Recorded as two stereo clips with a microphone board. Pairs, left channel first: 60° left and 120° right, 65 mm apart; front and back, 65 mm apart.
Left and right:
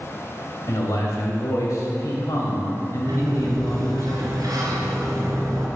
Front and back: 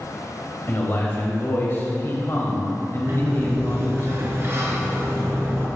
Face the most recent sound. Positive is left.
turn(degrees=-130)